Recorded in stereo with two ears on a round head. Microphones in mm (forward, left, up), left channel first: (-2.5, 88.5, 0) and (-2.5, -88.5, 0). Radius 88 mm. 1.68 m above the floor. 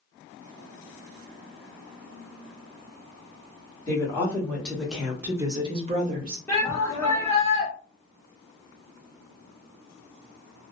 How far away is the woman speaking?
About 1.5 m.